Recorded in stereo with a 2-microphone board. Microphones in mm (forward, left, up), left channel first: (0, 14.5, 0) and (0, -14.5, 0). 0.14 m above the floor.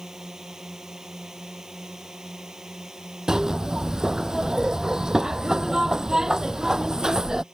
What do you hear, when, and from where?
0.0 s a drone: 15° right (ahead or behind); by 7.5 s 20° right (ahead or behind)
3.3 s a zipper: 20° right (ahead or behind)